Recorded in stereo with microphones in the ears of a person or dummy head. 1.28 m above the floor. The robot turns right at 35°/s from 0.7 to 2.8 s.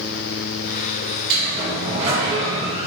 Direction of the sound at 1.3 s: 65° right.